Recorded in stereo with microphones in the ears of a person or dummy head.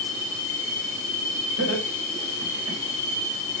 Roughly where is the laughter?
Right.